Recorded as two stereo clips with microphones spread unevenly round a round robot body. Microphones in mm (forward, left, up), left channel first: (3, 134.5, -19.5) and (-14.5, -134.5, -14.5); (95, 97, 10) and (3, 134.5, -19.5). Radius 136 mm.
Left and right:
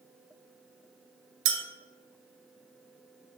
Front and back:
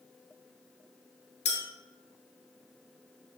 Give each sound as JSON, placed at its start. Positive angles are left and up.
{"t": 1.4, "sound": "a clink", "azimuth_deg": -50, "distance_m": 0.8}